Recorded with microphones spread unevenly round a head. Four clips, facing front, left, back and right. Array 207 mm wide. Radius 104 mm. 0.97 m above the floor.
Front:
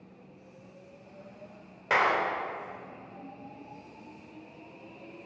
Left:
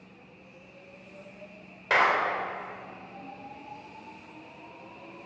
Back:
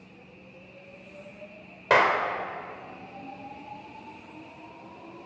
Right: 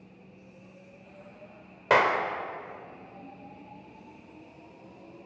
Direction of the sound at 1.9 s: 135° right.